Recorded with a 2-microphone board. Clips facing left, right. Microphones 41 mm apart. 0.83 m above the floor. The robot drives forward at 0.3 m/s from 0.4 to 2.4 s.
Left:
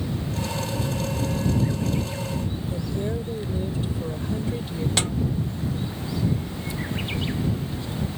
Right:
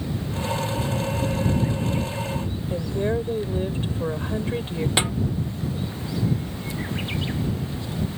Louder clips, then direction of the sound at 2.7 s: Right 6 dB; 40° right (ahead or behind).